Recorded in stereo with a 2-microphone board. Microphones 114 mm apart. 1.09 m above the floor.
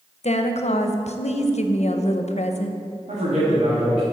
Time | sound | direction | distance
0.2 | a woman speaking | 75° left (ahead or behind) | 0.6 m
3.1 | a man speaking | 85° right | 1.7 m